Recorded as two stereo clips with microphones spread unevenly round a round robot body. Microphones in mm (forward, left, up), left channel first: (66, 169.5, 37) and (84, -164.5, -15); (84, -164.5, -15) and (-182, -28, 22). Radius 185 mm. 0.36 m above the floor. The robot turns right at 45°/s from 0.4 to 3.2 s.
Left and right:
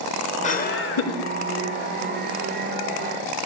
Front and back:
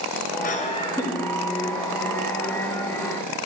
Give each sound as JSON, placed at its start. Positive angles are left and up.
{"t": 0.4, "sound": "laughter", "azimuth_deg": 20, "distance_m": 1.1}